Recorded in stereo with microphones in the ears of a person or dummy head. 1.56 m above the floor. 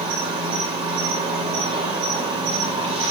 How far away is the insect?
About 1.6 m.